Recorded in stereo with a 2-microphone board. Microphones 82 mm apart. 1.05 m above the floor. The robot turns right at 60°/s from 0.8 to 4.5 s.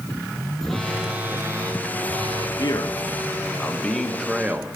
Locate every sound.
0.6 s a phone buzzing: 175° left, 1.3 m; by 2.5 s 85° right, 1.3 m
2.6 s a man speaking: 85° left, 1.3 m; by 4.7 s 160° right, 1.3 m